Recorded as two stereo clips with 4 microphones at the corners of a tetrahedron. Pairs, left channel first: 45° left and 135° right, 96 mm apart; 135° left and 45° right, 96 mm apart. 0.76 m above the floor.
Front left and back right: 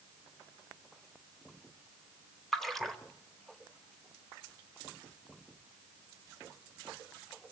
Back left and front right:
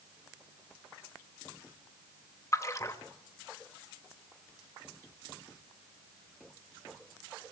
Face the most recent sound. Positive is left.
turn(degrees=130)